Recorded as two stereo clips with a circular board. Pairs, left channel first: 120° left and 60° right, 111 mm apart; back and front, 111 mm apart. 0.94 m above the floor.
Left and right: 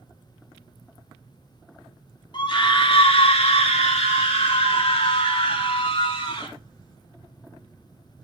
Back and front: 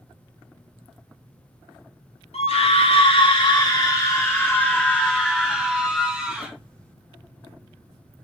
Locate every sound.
2.3 s a scream: 165° left, 1.5 m; by 6.5 s 85° left, 2.5 m